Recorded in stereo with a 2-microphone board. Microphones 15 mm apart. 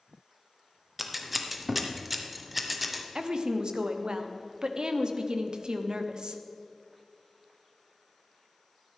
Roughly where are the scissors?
Centre.